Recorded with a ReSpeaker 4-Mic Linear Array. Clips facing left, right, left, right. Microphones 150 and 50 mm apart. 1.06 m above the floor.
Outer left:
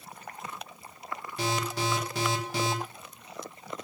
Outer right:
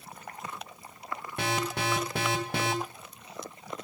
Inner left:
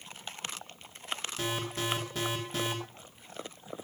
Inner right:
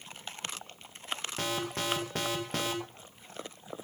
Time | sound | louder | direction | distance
1.4 | an alarm | even, inner right 1 dB | 55° right (ahead or behind) | 2.5 m